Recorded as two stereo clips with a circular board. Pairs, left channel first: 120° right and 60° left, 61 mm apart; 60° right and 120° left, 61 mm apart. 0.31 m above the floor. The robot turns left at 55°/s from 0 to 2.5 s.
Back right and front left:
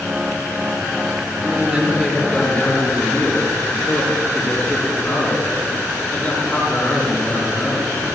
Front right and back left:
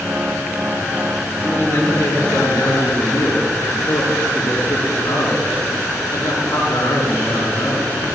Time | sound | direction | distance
1.4 | a man speaking | straight ahead | 4 m